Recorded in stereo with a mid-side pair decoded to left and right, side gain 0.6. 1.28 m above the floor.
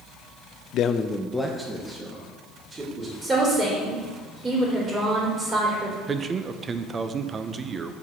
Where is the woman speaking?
25° right, 3.5 m.